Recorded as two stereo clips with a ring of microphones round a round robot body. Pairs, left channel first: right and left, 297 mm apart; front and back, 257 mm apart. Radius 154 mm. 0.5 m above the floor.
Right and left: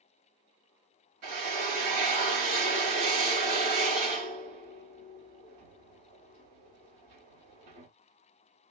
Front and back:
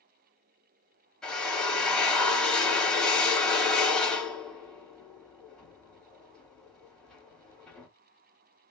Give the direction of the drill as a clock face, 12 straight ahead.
9 o'clock.